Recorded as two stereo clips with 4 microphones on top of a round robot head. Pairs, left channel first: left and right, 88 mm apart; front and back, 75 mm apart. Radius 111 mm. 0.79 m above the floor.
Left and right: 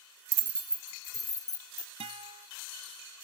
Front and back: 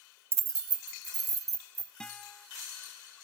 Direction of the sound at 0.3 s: 125° right.